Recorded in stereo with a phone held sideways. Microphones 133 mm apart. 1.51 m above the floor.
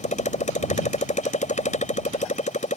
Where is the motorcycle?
70° left (ahead or behind).